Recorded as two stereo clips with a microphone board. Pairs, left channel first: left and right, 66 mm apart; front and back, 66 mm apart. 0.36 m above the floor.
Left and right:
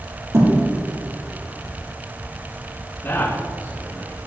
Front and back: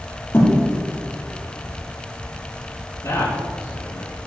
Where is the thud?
55° right, 5 m.